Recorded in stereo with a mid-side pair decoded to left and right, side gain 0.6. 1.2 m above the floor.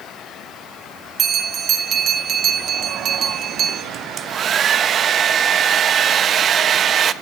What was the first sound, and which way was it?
A bell, 45° right.